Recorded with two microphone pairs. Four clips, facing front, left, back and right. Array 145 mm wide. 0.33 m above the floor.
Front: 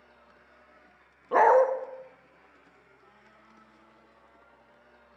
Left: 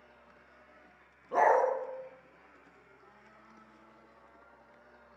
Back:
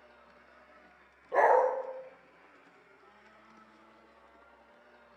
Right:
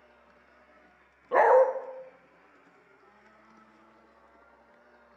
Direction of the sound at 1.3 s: 25° right.